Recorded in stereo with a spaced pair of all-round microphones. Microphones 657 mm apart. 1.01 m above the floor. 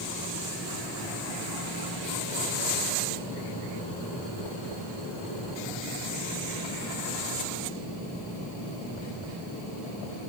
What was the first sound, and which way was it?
Only background noise.